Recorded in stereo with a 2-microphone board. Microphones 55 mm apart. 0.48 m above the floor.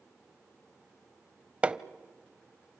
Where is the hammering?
20° right (ahead or behind), 0.6 m.